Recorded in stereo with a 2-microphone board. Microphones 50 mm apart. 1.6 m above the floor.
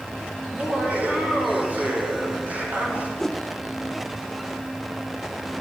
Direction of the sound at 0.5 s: 30° right (ahead or behind).